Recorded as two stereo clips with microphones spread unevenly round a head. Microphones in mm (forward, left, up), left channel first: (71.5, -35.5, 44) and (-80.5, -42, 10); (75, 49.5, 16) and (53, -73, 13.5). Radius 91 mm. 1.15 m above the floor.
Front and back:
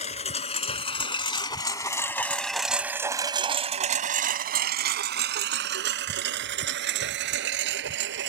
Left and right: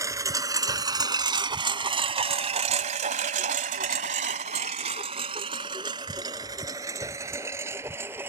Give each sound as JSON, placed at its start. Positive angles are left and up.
{"t": 0.0, "sound": "a lawn mower", "azimuth_deg": -35}